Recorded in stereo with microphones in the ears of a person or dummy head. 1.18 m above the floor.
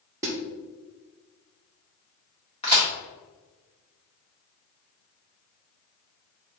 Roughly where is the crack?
Left.